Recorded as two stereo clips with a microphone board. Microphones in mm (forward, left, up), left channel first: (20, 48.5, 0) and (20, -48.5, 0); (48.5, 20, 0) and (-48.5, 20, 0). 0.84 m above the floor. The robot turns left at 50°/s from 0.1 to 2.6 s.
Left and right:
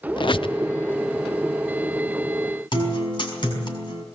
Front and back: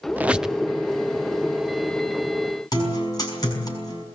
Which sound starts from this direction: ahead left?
A guitar, at 2.7 s.